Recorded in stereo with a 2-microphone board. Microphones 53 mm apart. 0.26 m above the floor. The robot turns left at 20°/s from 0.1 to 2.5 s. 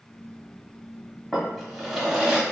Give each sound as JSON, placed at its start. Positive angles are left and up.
{"t": 1.3, "sound": "a drawer", "side_deg": 5, "distance_m": 0.9}